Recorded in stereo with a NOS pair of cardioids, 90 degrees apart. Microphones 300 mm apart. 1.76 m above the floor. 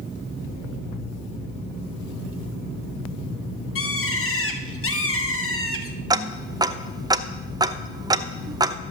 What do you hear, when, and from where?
3.8 s a bird: 45° left, 1.4 m
6.1 s ticking: 10° right, 0.6 m